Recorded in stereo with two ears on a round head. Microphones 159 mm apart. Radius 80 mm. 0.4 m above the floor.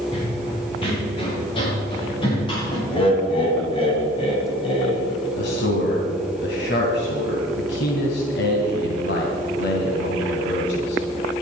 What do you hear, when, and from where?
0.1 s running footsteps: 30° left (ahead or behind), 5.5 m; by 2.8 s 25° left (ahead or behind), 9.5 m
2.9 s laughter: 30° left (ahead or behind), 2.5 m
5.4 s a man speaking: 70° left (ahead or behind), 2.5 m